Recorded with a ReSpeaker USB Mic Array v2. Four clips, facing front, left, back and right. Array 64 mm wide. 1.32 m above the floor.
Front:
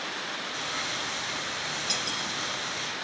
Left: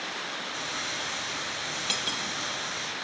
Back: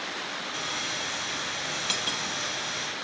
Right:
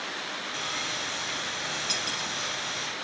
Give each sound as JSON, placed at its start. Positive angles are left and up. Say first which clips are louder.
{"t": 0.5, "sound": "sawing", "louder": "right 1 dB, even", "azimuth_deg": -135, "distance_m": 2.0}
{"t": 1.9, "sound": "cutlery clinking", "louder": "even, back 1 dB", "azimuth_deg": 125, "distance_m": 0.7}